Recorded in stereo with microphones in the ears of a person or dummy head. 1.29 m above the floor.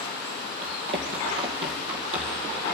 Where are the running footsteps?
30° right (ahead or behind), 1.8 m.